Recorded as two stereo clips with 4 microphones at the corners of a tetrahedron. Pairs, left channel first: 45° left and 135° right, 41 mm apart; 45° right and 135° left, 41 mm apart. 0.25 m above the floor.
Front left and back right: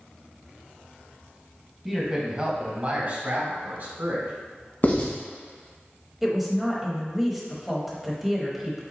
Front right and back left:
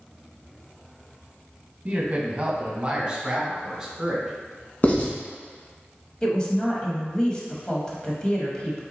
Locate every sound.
1.9 s a man speaking: 145° left, 1.2 m; by 4.3 s 145° right, 2 m
4.8 s writing: 5° left, 1.1 m
6.2 s a woman speaking: 65° right, 0.9 m